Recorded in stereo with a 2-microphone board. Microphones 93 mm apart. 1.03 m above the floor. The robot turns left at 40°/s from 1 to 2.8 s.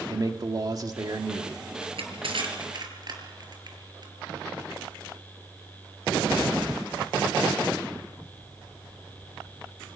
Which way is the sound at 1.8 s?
80° right.